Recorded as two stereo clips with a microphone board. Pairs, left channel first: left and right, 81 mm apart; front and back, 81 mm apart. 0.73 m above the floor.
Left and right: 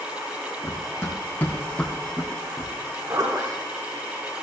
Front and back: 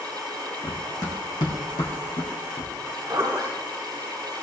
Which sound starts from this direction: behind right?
A zipper, at 2.8 s.